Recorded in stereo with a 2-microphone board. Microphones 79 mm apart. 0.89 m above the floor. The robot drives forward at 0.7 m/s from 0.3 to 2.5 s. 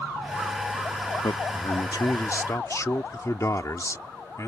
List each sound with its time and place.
1.2 s a man speaking: 75° left (ahead or behind); by 4.5 s 45° left (ahead or behind)